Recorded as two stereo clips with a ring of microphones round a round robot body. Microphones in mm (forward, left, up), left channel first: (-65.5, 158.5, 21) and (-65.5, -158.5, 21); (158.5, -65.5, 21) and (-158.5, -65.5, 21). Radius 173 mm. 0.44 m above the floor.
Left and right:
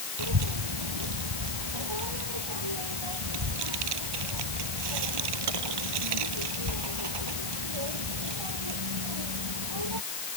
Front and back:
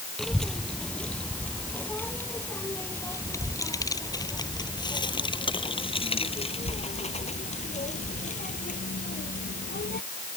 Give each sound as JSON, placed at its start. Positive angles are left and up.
{"t": 0.2, "sound": "a child speaking", "azimuth_deg": -90}